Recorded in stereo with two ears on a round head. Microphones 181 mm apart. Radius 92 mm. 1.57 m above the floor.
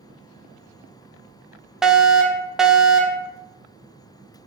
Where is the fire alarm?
5° right (ahead or behind), 0.7 m.